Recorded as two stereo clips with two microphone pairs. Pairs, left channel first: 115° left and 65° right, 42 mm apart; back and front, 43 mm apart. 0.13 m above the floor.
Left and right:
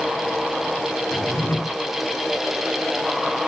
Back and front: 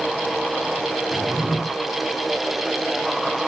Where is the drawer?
75° left, 1.6 m.